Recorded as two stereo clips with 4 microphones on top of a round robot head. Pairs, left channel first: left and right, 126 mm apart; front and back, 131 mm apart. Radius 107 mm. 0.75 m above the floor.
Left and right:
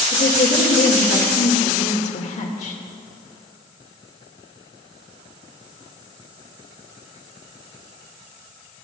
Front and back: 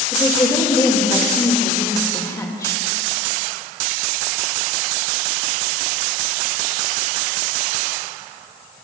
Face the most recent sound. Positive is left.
turn(degrees=65)